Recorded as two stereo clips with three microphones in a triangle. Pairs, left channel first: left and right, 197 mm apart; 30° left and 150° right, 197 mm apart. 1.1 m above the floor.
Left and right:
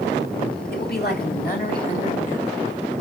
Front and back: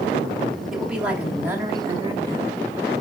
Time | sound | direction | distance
0.7 | a woman speaking | 120° left | 3 m